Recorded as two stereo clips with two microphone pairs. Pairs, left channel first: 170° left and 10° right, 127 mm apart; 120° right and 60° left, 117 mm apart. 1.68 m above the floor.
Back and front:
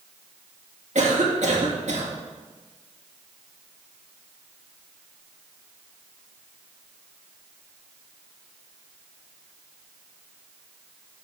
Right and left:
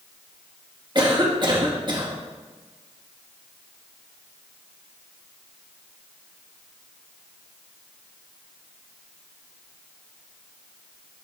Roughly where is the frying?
No frying in this recording.